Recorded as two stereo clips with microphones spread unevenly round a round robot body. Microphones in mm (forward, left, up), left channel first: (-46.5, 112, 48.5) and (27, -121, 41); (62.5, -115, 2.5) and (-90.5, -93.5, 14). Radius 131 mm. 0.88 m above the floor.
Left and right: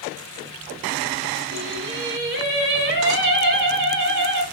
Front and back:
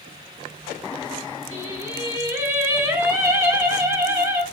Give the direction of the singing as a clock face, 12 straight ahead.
4 o'clock.